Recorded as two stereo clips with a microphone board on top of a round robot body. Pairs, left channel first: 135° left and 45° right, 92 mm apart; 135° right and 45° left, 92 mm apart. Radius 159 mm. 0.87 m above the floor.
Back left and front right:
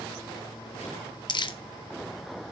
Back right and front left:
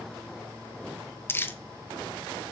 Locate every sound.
1.3 s crumpling: 160° left, 1.1 m